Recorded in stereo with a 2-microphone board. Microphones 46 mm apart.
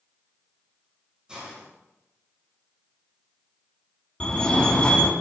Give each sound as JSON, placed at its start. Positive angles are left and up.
{"t": 1.3, "sound": "a hiss", "side_deg": -20, "distance_m": 7.5}
{"t": 4.2, "sound": "a fire alarm", "side_deg": 20, "distance_m": 2.5}